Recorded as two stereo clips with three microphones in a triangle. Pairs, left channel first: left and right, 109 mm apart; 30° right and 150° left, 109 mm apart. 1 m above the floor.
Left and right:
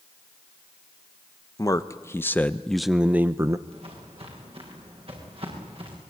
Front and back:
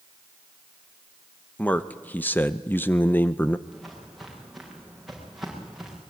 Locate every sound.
1.6 s a man speaking: 40° left, 1.0 m; by 3.6 s 90° right, 0.7 m
3.7 s footsteps: 120° right, 8 m; by 6.0 s 125° right, 6.5 m